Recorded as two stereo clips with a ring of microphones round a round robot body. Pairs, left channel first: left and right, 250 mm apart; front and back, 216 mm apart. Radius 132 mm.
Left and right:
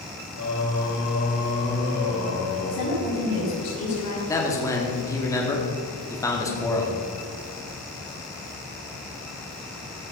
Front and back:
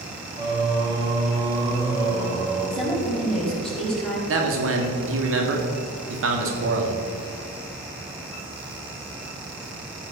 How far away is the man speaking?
About 2 m.